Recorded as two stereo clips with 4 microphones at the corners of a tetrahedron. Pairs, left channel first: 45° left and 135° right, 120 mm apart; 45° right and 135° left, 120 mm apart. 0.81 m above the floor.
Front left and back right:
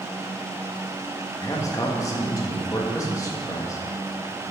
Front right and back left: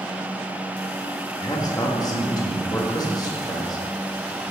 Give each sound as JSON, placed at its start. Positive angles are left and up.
{"t": 1.4, "sound": "a man speaking", "azimuth_deg": -5, "distance_m": 1.4}